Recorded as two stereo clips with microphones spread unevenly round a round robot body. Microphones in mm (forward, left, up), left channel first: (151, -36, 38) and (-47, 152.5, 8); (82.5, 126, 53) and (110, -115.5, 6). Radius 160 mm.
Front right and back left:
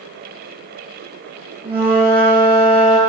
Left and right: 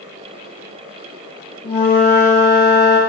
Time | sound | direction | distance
1.6 | a flute | 50° left | 6 m